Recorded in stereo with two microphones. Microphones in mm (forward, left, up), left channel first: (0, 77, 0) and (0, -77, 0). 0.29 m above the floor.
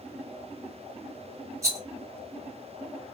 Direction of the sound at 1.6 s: 20° right (ahead or behind).